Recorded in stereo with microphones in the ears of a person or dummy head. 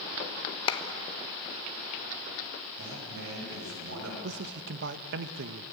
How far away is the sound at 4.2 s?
About 1.1 m.